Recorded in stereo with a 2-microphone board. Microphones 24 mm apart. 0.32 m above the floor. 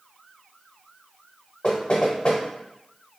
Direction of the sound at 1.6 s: 50° left (ahead or behind).